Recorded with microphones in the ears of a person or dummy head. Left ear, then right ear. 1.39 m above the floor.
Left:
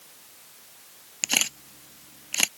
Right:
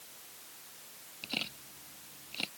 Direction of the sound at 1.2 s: 65° left (ahead or behind).